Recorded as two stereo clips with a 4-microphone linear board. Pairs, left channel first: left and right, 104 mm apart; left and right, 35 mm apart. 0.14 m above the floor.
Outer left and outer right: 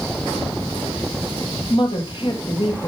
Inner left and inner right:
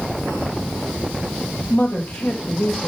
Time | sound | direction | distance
1.7 | a woman speaking | 50° left (ahead or behind) | 3 m